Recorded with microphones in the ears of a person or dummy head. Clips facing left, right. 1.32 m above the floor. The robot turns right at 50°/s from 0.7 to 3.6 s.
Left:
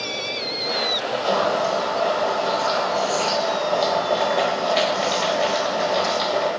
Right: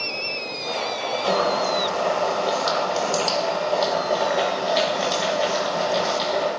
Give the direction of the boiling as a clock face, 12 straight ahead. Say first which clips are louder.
Left 1 dB; 4 o'clock.